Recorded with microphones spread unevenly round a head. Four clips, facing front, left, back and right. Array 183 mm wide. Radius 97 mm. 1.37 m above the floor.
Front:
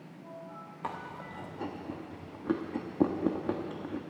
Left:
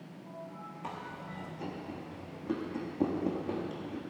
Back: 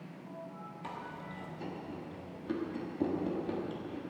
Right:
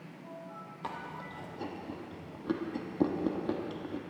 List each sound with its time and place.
0.8 s chewing: 20° right, 1.1 m